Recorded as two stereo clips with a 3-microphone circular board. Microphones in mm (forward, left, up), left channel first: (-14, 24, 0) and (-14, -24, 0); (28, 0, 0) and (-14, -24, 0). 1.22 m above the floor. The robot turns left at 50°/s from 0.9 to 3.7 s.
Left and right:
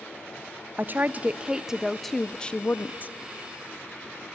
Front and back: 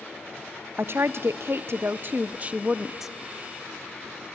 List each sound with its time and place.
0.8 s a woman speaking: 125° right, 0.6 m; by 3.1 s 120° left, 0.6 m